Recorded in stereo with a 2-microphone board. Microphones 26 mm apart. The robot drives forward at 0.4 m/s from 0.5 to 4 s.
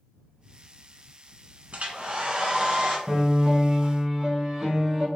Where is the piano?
15° right (ahead or behind), 0.9 m.